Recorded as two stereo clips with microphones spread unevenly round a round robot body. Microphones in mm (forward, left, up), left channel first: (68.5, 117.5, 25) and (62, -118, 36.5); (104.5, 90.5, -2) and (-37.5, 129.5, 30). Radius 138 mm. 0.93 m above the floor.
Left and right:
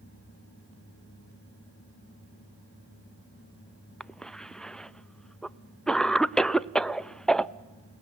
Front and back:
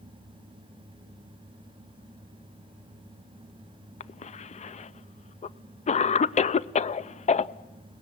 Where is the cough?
Straight ahead, 0.7 m.